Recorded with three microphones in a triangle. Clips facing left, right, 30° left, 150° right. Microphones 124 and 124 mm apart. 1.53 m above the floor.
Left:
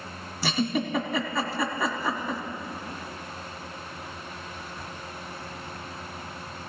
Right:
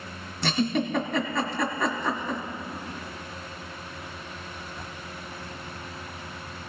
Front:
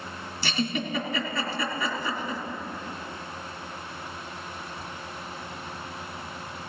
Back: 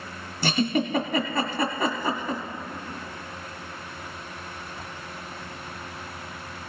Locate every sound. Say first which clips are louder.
0.4 s a giggle: right 1 dB, back 5 dB; 175° left, 1.7 m